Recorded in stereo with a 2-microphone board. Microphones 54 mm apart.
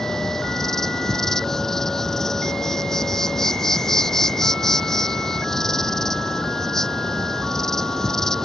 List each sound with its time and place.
0.0 s an insect: 10° left (ahead or behind)